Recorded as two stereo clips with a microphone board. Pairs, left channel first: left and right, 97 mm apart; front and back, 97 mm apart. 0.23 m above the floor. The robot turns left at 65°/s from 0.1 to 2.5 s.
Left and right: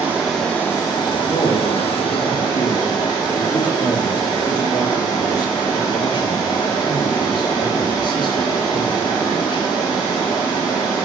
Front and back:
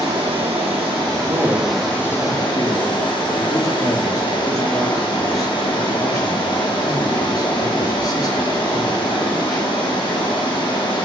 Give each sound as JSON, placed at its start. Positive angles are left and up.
{"t": 0.0, "sound": "running water", "azimuth_deg": -165, "distance_m": 7.0}
{"t": 1.3, "sound": "a man speaking", "azimuth_deg": 130, "distance_m": 3.5}